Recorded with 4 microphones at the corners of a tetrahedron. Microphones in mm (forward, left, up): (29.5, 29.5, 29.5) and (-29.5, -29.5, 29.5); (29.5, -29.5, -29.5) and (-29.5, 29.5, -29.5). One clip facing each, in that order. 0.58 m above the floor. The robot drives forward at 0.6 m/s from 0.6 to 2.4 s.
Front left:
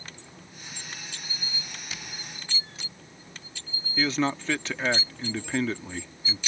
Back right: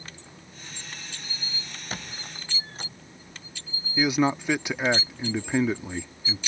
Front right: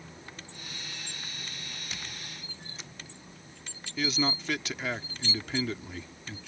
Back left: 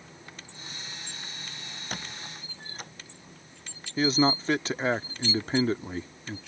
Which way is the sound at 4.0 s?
155° left.